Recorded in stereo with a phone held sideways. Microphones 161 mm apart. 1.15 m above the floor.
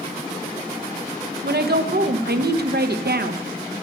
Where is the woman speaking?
85° right, 0.9 m.